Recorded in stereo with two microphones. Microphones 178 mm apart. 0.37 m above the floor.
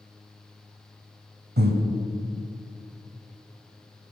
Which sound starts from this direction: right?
Breathing, at 1.6 s.